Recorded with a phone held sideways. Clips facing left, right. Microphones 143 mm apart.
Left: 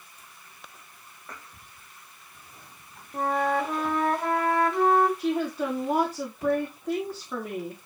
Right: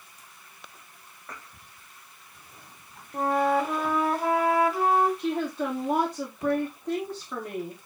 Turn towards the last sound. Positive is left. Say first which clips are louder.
# left 1 dB
turn(degrees=0)  # may be behind; listen again after turning